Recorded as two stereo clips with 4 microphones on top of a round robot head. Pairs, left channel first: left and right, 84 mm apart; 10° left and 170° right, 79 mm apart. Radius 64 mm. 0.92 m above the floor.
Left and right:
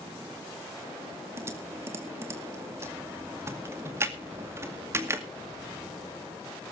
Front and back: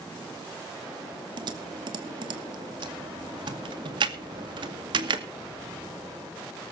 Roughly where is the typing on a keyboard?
Behind right.